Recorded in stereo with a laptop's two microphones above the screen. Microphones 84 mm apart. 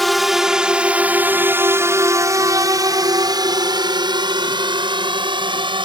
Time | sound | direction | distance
0.0 | a drone | centre (ahead or behind) | ?